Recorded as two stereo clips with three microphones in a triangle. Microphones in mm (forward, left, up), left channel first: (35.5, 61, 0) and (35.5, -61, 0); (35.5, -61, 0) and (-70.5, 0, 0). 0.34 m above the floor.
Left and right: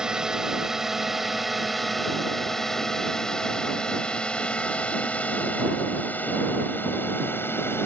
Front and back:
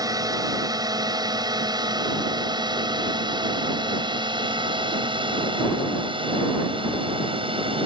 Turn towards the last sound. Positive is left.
turn(degrees=155)